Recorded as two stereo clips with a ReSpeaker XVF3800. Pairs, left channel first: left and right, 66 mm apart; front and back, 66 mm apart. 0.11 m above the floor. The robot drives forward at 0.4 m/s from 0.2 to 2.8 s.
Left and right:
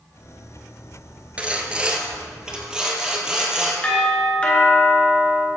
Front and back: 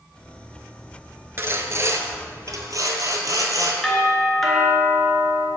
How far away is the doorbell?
About 1.5 m.